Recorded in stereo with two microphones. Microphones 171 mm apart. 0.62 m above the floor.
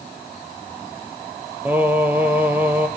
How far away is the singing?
About 3 m.